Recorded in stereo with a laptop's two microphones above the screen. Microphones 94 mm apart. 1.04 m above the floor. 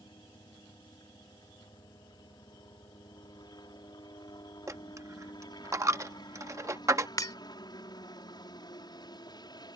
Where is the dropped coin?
30° right (ahead or behind).